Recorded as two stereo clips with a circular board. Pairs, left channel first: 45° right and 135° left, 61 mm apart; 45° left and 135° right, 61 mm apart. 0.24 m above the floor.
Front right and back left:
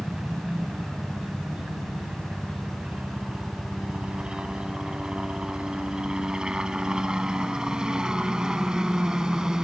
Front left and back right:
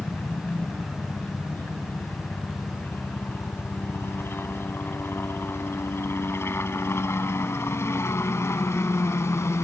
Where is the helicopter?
75° left; by 9.6 s 60° left.